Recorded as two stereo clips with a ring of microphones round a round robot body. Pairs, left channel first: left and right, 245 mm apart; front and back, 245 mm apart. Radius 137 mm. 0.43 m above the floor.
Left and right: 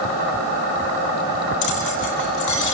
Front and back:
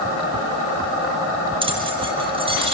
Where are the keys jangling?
110° left, 8.5 m.